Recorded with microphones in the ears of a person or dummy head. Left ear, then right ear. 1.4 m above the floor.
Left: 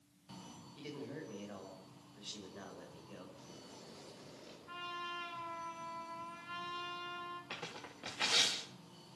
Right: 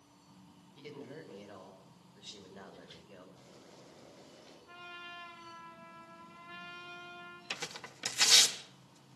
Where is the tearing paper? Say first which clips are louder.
Right 5 dB; 75° right (ahead or behind), 2.5 m.